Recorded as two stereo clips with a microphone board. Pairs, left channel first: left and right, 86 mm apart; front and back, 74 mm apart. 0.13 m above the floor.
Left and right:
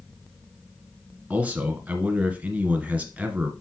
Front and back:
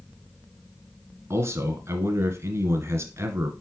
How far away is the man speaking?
About 1.8 m.